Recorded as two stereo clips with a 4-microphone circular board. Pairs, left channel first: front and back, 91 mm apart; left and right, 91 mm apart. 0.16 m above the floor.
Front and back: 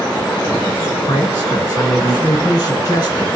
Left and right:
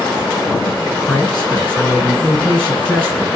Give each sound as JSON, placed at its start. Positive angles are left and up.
{"t": 1.1, "sound": "a man speaking", "azimuth_deg": 15, "distance_m": 2.5}